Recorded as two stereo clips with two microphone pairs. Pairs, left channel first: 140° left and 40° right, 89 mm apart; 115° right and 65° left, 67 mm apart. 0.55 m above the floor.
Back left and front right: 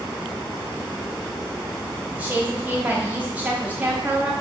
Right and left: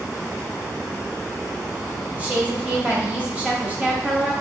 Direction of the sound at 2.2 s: 20° left.